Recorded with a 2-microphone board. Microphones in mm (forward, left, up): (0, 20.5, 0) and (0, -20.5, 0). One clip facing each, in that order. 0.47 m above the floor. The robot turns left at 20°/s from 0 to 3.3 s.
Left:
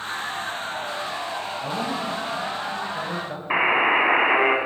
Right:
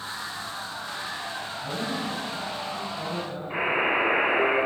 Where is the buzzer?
65° left (ahead or behind), 1.7 m.